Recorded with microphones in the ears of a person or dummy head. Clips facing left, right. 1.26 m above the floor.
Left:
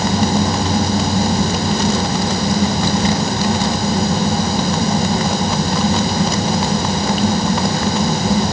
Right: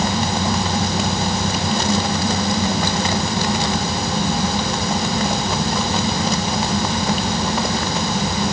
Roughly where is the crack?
I don't hear a crack.